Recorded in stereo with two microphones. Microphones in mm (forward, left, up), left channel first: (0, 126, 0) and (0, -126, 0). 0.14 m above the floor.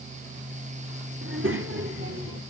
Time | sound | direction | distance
1.2 | a child speaking | 50° right (ahead or behind) | 1.3 m